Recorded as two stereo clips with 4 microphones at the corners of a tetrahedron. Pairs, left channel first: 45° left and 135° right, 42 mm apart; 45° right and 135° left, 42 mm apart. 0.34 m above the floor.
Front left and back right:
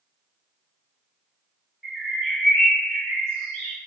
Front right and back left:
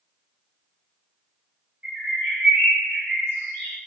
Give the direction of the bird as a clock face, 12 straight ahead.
8 o'clock.